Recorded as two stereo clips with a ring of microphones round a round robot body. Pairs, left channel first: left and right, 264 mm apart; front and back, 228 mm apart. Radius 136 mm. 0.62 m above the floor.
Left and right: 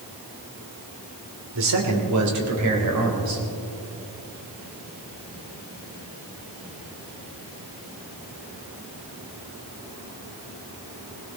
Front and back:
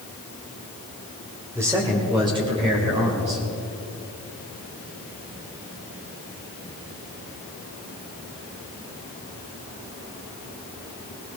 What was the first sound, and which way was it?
A man speaking, 100° right.